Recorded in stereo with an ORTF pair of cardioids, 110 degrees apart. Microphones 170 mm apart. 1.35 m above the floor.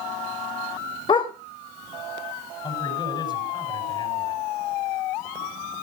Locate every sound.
1.1 s a dog barking: 30° left, 2 m
2.6 s a man speaking: 25° left, 6 m